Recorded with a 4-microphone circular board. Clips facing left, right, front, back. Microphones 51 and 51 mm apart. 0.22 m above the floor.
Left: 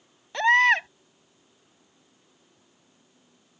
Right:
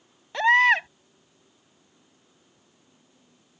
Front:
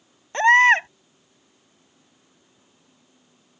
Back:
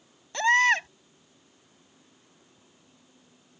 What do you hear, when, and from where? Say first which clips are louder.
0.3 s a baby crying: right 1 dB, front 7 dB; 5° right